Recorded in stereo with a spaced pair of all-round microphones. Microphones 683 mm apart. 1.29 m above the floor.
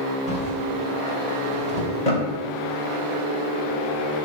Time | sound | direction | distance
0.3 | a drawer | 60° left (ahead or behind) | 4 m